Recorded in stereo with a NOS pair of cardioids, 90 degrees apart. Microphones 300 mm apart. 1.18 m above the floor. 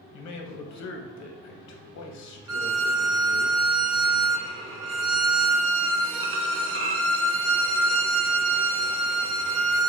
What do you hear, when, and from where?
0.1 s a man speaking: 65° left, 0.9 m
2.5 s a violin: 45° right, 0.7 m